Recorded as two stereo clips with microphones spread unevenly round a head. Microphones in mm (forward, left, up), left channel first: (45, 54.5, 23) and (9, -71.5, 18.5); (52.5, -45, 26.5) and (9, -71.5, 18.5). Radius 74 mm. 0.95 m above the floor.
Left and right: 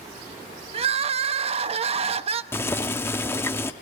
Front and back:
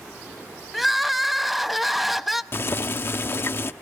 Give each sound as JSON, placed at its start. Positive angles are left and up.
{"t": 0.7, "sound": "crying", "azimuth_deg": -60, "distance_m": 0.7}
{"t": 2.5, "sound": "boiling", "azimuth_deg": 5, "distance_m": 0.6}